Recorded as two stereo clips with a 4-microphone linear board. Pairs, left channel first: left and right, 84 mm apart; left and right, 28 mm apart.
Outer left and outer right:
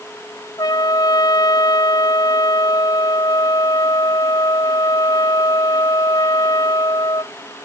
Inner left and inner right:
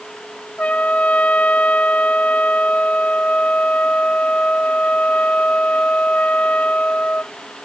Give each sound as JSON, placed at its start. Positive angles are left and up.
{"t": 0.6, "sound": "a trumpet", "side_deg": 50}